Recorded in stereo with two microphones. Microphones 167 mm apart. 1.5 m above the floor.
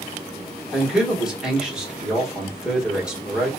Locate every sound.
0.7 s a man speaking: 5° right (ahead or behind), 1.3 m